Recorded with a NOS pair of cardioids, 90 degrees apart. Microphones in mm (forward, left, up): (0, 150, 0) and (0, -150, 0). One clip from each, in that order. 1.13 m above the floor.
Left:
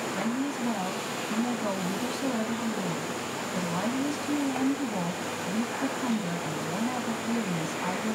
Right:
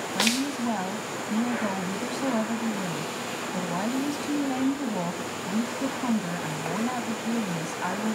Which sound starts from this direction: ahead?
A woman speaking, at 0.1 s.